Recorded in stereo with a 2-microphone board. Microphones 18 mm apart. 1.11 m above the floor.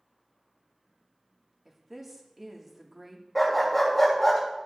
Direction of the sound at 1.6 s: 20° right (ahead or behind).